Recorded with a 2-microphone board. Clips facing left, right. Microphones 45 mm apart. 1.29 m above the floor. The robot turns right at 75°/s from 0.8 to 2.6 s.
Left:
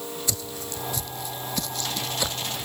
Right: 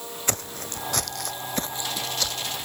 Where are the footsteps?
50° right (ahead or behind); by 2.6 s 50° left (ahead or behind).